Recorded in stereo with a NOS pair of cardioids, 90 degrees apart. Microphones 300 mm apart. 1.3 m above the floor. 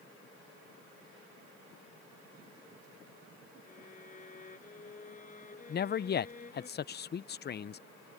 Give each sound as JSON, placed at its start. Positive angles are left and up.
{"t": 3.6, "sound": "a violin", "azimuth_deg": 25}
{"t": 5.7, "sound": "a man speaking", "azimuth_deg": 35}